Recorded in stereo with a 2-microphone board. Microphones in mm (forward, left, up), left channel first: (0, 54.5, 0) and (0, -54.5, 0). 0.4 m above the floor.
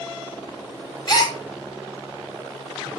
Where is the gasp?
45° left (ahead or behind), 1.4 m.